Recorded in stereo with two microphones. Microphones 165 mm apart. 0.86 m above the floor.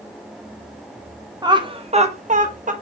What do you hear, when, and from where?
1.4 s laughter: 25° right (ahead or behind), 1.2 m; by 2.7 s 50° right (ahead or behind), 1.2 m